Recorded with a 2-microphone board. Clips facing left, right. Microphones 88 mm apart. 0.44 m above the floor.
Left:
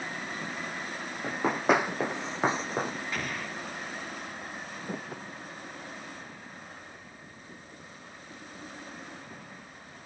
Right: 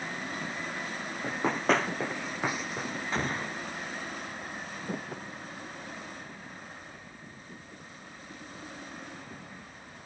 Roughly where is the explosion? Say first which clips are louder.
Right 3 dB; right.